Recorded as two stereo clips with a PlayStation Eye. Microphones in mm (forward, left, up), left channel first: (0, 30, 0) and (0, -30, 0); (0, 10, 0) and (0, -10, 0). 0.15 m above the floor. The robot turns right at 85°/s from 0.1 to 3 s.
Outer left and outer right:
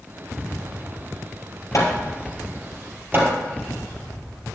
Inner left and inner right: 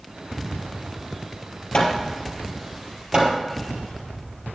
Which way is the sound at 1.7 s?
60° left (ahead or behind).